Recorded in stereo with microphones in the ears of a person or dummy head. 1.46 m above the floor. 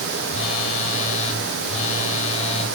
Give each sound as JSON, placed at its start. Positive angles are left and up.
{"t": 0.3, "sound": "a phone buzzing", "side_deg": 35, "distance_m": 3.5}